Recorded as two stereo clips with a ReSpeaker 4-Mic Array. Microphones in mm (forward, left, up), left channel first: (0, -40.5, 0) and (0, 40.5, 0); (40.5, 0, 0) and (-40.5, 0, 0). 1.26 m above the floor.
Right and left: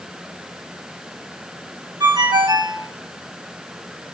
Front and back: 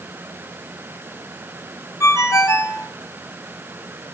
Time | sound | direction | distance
2.0 | a ringtone | 55° left | 1.8 m